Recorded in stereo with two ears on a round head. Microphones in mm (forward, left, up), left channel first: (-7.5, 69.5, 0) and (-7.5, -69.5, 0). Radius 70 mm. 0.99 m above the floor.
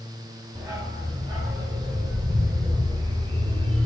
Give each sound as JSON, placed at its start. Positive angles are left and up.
{"t": 0.6, "sound": "a dog barking", "side_deg": -25, "distance_m": 6.0}